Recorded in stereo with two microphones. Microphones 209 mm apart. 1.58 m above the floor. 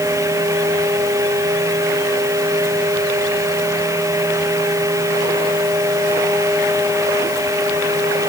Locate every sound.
Only background noise.